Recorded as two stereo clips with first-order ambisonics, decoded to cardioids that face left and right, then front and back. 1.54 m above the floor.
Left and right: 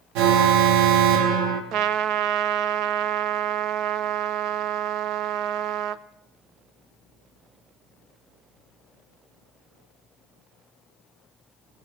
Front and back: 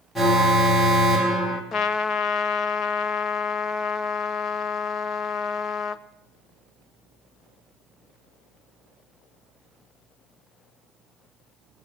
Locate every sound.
0.1 s an alarm: 85° right, 1.8 m
1.7 s a trumpet: 55° right, 0.6 m